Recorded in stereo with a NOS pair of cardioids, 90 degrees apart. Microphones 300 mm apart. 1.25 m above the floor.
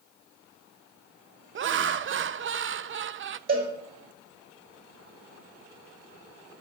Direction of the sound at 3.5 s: 45° right.